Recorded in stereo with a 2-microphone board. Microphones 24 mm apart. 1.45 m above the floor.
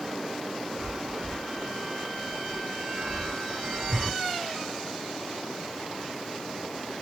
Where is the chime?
35° right (ahead or behind), 1.4 m.